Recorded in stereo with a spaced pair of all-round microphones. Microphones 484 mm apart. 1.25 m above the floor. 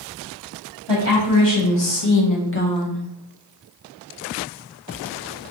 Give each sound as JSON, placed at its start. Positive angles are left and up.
{"t": 0.9, "sound": "a woman speaking", "side_deg": 60, "distance_m": 1.2}